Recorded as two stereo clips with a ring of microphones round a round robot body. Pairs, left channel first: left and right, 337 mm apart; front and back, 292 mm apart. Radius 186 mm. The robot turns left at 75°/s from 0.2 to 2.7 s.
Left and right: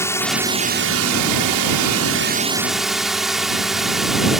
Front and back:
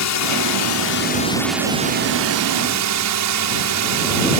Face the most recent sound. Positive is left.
turn(degrees=180)